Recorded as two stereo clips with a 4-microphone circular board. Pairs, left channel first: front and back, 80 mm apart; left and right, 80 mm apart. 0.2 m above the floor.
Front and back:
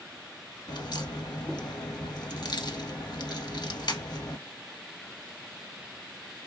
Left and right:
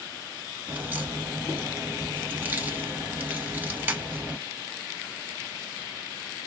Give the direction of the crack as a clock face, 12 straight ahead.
1 o'clock.